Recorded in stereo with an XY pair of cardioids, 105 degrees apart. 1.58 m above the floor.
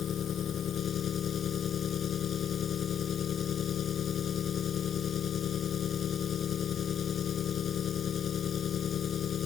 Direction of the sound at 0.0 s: 55° left.